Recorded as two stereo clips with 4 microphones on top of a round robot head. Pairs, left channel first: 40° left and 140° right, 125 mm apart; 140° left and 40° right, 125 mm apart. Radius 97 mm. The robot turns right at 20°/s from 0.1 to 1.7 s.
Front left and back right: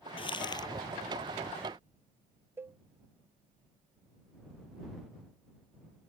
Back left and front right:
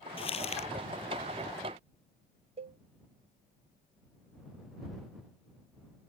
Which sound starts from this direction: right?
A cowbell, at 2.6 s.